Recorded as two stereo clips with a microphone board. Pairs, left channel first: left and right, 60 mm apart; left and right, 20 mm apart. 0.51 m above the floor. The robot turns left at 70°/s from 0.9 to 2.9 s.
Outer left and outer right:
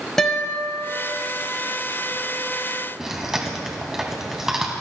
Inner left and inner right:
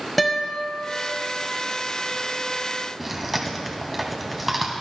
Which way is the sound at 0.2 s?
10° left (ahead or behind).